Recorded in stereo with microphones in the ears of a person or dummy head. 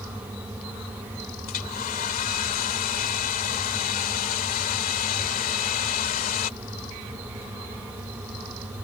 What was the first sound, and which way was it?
A hair dryer, 45° left (ahead or behind).